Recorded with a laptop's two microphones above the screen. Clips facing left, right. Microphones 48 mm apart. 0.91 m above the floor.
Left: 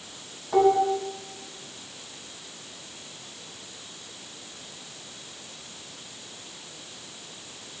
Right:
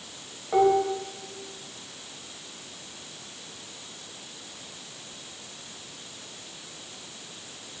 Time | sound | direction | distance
0.5 | dishes clattering | 25° right (ahead or behind) | 3 m